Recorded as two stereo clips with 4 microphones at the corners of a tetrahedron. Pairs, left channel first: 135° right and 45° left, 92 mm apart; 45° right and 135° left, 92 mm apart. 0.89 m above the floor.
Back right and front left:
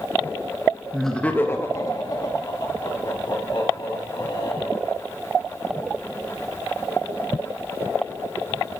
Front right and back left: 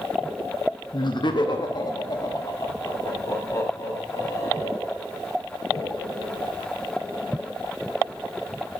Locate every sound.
0.9 s laughter: 40° right, 0.8 m; by 5.0 s 100° right, 4.5 m